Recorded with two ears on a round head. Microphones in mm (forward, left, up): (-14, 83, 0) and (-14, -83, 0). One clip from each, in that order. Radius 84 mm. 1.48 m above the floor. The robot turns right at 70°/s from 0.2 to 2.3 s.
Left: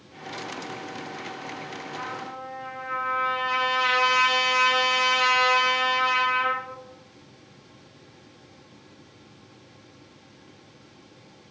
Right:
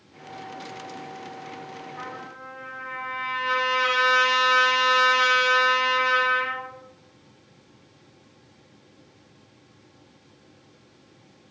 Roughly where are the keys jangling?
I don't hear keys jangling.